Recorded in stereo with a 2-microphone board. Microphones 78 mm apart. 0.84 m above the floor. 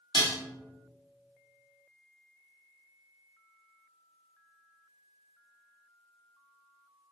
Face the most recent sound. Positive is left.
turn(degrees=60)  # may be behind; listen again after turning